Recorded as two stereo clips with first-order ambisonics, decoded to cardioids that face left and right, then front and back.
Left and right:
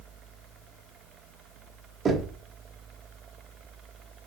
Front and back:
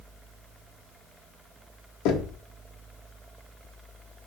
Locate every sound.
2.0 s knocking: 25° right, 0.9 m